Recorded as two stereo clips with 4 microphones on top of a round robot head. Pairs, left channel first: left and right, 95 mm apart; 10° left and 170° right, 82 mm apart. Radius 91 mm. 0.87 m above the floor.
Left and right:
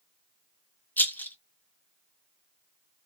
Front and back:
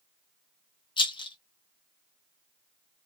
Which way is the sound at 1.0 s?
20° left.